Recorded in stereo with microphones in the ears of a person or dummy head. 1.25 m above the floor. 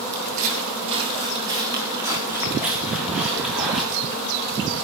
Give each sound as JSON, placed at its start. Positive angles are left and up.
{"t": 0.1, "sound": "footsteps", "side_deg": -45, "distance_m": 2.0}